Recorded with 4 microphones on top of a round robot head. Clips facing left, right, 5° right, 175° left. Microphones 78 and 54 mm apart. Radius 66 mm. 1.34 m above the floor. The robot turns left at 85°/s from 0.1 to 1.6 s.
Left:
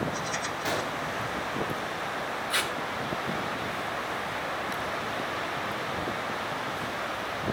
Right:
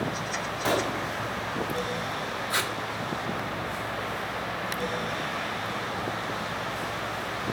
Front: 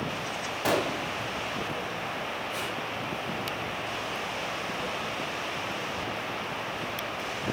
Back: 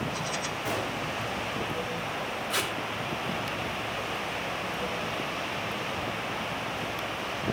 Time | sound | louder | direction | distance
0.6 | a gunshot | right 6 dB, front 8 dB | 25° right | 1.5 m
2.5 | tape being pulled | right 2 dB, back 3 dB | 155° right | 1.8 m